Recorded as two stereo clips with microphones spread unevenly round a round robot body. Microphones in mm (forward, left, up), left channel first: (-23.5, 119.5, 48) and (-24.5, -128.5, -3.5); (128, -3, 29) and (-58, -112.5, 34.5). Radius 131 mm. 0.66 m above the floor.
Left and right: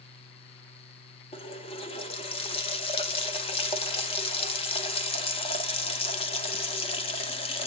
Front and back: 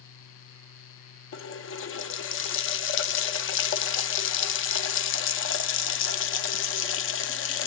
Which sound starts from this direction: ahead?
A running tap, at 1.3 s.